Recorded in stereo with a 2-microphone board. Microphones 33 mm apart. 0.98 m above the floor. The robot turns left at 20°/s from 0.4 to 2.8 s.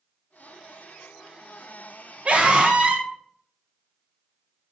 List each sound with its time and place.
2.2 s a scream: 40° right (ahead or behind), 0.7 m; by 3.1 s 35° right (ahead or behind), 0.7 m